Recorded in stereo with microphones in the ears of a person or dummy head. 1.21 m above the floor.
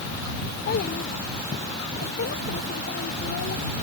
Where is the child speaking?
50° left (ahead or behind).